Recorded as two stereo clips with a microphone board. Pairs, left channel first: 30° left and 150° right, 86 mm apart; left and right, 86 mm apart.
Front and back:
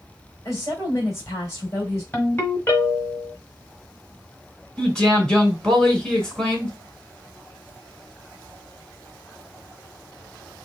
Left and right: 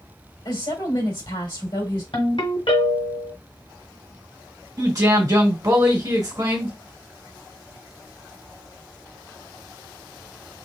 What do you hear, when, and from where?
0.5 s a woman speaking: 80° left, 1.6 m
2.1 s a ringtone: 95° left, 1.3 m
4.8 s a man speaking: 50° right, 1.6 m